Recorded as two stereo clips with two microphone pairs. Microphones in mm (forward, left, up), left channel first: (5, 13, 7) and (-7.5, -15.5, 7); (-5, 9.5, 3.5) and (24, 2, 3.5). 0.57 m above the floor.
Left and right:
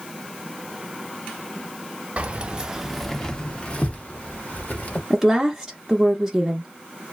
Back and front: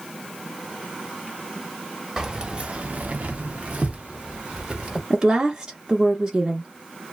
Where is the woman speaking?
45° right, 0.7 m.